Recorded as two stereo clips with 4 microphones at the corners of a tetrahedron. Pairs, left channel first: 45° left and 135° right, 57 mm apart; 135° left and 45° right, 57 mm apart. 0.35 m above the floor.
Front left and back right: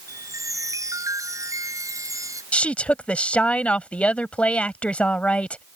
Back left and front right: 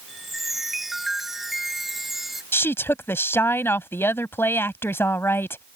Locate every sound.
0.1 s a chime: 130° right
2.5 s a woman speaking: 110° left